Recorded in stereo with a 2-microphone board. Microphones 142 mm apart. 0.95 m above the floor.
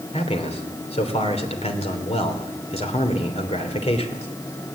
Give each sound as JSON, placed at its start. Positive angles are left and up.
{"t": 0.1, "sound": "a man speaking", "side_deg": 50, "distance_m": 3.0}